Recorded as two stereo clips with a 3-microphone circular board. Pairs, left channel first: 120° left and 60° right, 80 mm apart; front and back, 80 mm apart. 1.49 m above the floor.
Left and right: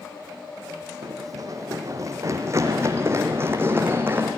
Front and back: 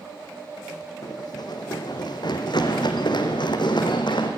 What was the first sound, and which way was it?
Running footsteps, 25° right.